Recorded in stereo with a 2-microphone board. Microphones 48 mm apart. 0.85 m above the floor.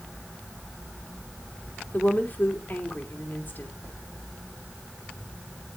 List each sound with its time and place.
1.9 s a woman speaking: 45° left (ahead or behind), 3 m